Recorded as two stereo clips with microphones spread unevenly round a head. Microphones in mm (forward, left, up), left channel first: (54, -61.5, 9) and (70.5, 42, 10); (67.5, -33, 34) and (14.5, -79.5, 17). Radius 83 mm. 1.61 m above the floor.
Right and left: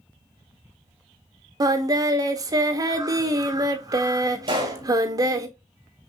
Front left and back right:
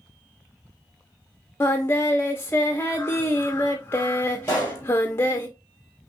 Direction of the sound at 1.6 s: 55° left.